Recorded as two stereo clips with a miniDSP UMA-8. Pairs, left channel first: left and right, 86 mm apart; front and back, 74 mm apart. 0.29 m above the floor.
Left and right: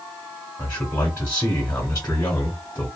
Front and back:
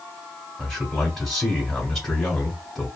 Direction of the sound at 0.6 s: 75° left.